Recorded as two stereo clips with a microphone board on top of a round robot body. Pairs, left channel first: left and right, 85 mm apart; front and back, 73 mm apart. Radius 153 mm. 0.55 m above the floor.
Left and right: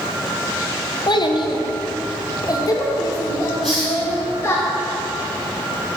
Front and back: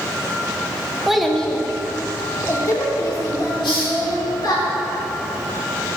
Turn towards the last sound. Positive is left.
turn(degrees=0)